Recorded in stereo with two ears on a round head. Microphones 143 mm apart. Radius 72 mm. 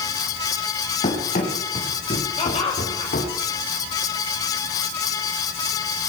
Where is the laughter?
40° left (ahead or behind), 5.5 m.